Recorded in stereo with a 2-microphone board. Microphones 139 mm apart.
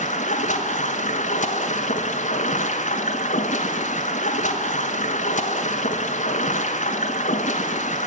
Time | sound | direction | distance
0.0 | running water | 65° left (ahead or behind) | 1.1 m